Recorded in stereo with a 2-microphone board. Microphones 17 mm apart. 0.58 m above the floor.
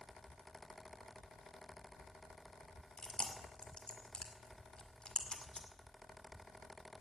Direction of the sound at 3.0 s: 55° left (ahead or behind).